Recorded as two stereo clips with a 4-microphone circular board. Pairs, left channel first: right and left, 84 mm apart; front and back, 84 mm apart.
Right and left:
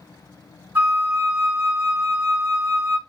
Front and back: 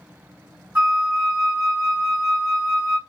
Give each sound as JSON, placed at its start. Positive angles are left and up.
{"t": 0.8, "sound": "a flute", "azimuth_deg": 120, "distance_m": 1.8}